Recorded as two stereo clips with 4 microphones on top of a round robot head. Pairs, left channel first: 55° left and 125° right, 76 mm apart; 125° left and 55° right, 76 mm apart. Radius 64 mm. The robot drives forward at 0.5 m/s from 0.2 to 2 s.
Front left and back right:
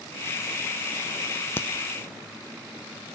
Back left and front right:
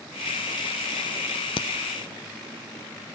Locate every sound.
1.6 s a crack: 115° left, 0.5 m; by 1.7 s 120° left, 0.6 m